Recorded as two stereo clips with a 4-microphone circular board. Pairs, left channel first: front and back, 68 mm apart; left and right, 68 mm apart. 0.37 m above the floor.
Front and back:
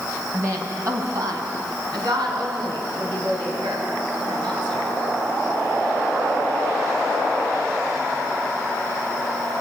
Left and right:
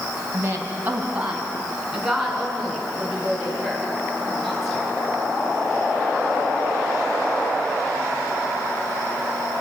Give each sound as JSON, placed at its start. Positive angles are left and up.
{"t": 0.3, "sound": "a woman speaking", "azimuth_deg": -145, "distance_m": 3.0}